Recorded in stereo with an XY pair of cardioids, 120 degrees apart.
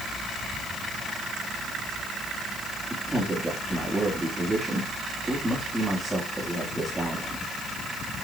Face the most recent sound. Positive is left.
turn(degrees=-15)